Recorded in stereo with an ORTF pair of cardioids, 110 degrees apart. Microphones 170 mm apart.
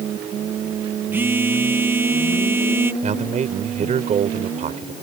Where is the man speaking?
45° right.